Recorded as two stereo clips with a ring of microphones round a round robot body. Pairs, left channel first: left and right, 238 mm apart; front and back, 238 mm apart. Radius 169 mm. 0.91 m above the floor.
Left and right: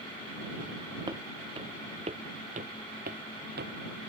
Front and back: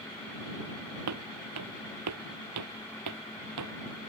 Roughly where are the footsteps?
Behind.